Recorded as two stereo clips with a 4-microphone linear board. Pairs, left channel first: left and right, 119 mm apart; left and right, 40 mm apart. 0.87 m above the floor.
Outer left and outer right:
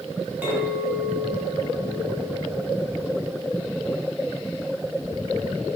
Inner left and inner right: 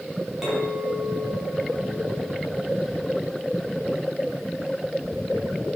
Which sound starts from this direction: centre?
A clink, at 0.4 s.